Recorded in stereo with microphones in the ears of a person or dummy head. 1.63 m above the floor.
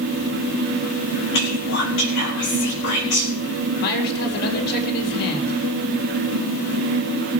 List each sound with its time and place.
1.3 s whispering: 60° left (ahead or behind), 4.5 m
3.8 s a man speaking: 55° left (ahead or behind), 4.5 m